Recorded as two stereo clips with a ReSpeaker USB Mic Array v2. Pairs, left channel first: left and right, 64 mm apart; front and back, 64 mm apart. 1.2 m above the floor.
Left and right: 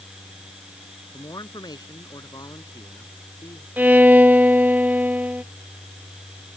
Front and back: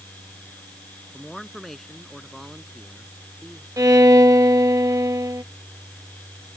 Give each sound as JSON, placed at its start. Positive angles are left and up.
{"t": 1.1, "sound": "a man speaking", "azimuth_deg": 90}
{"t": 3.8, "sound": "a violin", "azimuth_deg": -155}